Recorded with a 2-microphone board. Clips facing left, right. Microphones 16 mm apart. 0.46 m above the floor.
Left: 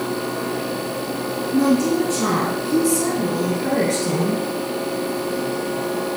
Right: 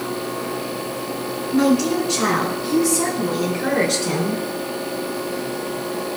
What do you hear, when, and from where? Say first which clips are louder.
1.5 s a woman speaking: even; 85° right, 9 m; by 4.4 s 75° right (ahead or behind), 6 m